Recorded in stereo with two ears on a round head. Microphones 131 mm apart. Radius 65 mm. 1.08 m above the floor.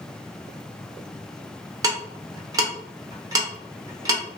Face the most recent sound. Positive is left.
turn(degrees=-25)  # may be behind; listen again after turning